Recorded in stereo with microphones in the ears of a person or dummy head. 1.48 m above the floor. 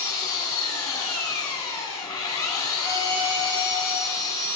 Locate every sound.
0.0 s an engine running: 30° left (ahead or behind), 2.5 m
2.8 s a violin: 25° right (ahead or behind), 1.9 m